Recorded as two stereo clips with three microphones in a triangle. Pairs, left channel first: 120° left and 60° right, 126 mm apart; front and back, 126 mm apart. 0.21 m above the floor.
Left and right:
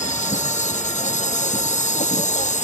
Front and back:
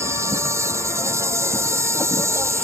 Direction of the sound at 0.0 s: 115° left.